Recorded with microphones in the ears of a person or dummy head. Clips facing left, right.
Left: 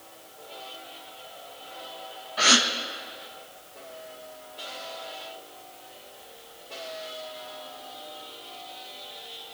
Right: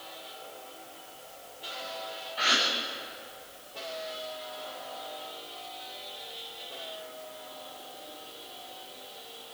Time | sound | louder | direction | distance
2.4 | a gasp | left 8 dB | 60° left (ahead or behind) | 1.0 m